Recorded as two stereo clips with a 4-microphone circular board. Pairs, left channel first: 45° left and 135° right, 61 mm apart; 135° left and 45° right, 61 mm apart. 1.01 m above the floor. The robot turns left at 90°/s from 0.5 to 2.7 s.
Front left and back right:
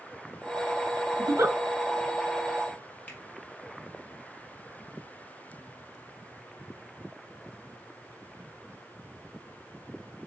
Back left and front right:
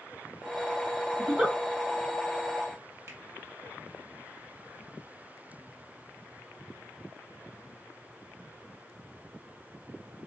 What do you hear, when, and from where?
1.2 s a giggle: 90° right, 1.1 m; by 1.6 s 125° right, 1.1 m
3.1 s a finger snap: 15° right, 1.5 m